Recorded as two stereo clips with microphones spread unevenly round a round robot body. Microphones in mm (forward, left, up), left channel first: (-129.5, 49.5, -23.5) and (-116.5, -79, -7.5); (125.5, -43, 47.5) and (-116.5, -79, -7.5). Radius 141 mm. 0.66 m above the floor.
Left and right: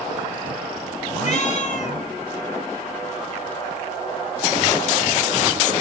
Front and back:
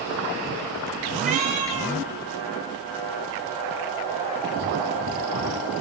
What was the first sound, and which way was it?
A cat meowing, 125° left.